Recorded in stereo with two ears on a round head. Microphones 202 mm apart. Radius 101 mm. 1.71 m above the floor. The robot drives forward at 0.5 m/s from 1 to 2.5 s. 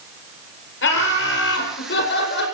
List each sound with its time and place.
0.8 s laughter: 55° left (ahead or behind), 8.5 m; by 2.5 s 50° left (ahead or behind), 9 m